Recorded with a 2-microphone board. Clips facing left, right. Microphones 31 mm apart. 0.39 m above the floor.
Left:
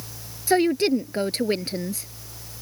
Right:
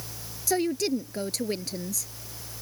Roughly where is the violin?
No violin in this recording.